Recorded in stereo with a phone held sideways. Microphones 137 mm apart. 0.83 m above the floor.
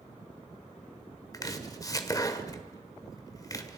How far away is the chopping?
About 1.5 m.